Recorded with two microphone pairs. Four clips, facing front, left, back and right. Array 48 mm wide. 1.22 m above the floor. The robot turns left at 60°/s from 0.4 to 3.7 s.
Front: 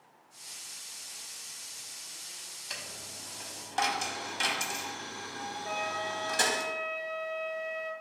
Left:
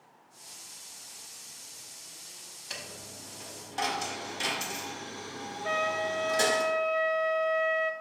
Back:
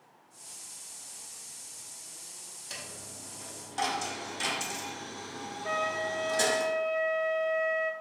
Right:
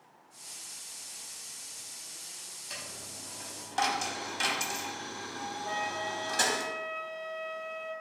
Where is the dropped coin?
15° left, 0.8 m; by 6.6 s 45° right, 0.8 m.